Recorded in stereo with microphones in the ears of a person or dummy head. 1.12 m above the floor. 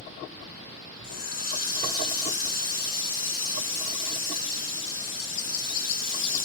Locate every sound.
1.0 s a running tap: 75° left (ahead or behind), 1.7 m